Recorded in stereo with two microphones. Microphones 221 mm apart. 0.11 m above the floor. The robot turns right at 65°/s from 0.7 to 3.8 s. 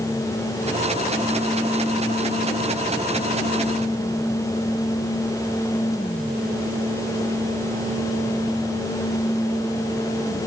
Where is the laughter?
No laughter in this recording.